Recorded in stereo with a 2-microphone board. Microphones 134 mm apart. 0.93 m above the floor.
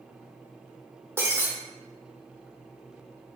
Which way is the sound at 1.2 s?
20° right (ahead or behind).